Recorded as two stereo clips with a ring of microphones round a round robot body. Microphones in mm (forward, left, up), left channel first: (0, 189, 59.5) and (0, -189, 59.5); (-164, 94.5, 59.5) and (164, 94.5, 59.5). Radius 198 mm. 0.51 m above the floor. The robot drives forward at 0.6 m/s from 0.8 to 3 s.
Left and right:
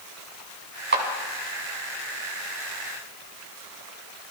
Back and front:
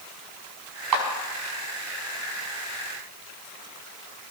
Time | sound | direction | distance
0.9 | a clap | 25° right | 4.5 m